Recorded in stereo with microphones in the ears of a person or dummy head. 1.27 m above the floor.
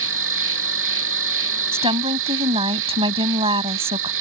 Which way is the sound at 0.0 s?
70° right (ahead or behind).